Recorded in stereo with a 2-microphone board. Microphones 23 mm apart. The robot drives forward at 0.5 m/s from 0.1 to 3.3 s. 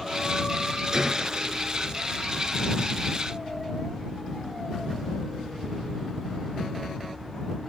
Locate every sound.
0.9 s a gunshot: 30° right (ahead or behind)